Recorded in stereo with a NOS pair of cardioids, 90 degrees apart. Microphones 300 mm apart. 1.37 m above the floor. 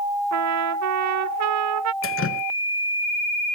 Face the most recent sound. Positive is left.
turn(degrees=45)